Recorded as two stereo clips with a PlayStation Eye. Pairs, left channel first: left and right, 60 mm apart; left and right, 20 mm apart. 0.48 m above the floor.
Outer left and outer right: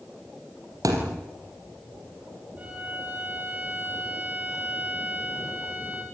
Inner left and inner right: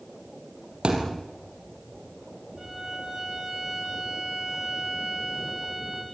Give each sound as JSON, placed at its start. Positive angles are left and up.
{"t": 0.8, "sound": "a thud", "side_deg": -65, "distance_m": 5.0}
{"t": 2.6, "sound": "a violin", "side_deg": -25, "distance_m": 8.0}